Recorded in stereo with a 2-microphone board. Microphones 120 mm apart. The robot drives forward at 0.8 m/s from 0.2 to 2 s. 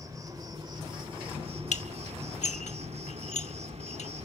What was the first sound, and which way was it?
An insect, 30° right (ahead or behind).